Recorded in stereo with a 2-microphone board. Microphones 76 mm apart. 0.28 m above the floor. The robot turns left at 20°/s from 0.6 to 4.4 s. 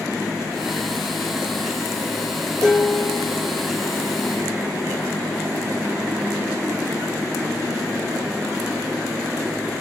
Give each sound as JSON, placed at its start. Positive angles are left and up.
{"t": 2.6, "sound": "dishes clattering", "side_deg": 20, "distance_m": 3.5}